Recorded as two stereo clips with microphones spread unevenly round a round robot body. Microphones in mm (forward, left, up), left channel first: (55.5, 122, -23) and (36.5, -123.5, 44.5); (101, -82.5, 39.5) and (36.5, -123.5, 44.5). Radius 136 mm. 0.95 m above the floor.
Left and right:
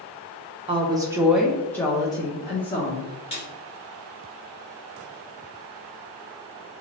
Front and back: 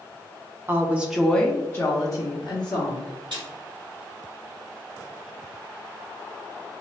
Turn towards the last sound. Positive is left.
turn(degrees=155)